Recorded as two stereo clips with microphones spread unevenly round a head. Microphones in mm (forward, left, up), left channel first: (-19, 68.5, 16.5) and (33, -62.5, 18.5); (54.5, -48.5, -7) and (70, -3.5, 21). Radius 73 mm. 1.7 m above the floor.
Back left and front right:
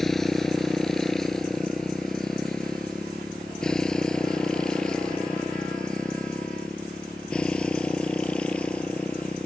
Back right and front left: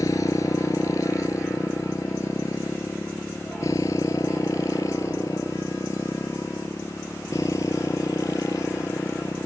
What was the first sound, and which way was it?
A motorcycle, 160° right.